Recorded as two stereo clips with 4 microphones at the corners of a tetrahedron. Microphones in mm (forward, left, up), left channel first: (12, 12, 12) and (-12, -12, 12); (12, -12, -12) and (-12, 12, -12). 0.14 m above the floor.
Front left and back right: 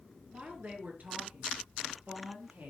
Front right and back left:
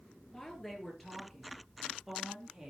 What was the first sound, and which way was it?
A woman speaking, 120° right.